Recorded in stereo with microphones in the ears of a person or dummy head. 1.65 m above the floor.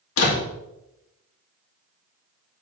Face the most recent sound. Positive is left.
turn(degrees=80)